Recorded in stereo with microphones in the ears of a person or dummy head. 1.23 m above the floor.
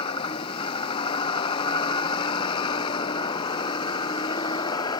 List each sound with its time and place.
0.0 s a vehicle: 35° left (ahead or behind); by 5.0 s 30° left (ahead or behind)